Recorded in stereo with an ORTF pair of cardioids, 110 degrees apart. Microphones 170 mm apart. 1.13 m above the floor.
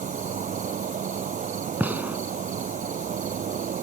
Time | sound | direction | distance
0.0 | an insect | 50° right | ?
1.8 | a gunshot | 10° right | ?